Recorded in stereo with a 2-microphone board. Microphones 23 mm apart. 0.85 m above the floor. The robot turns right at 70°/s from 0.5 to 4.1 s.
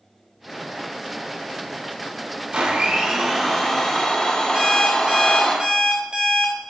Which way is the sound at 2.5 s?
65° right.